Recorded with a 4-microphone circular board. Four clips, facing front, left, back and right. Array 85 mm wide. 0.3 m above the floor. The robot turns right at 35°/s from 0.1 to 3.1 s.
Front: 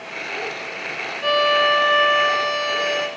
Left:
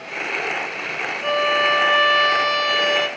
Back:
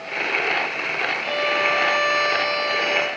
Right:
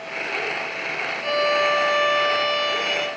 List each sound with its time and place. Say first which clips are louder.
1.2 s a violin: left 2 dB, front 7 dB; 25° left, 2.5 m; by 3.1 s 90° left, 2.5 m